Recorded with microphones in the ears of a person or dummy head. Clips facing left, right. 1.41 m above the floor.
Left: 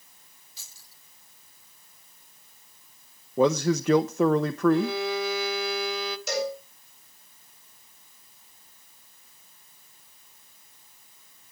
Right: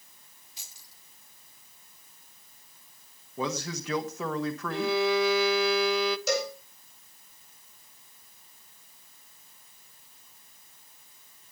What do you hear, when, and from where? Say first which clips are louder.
0.6 s keys jangling: right 1 dB; 15° right (ahead or behind), 2.5 m
3.4 s a man speaking: left 11 dB; 40° left (ahead or behind), 0.8 m
4.7 s a violin: left 1 dB; 55° right (ahead or behind), 0.9 m
6.3 s a cowbell: even; 75° right (ahead or behind), 7.5 m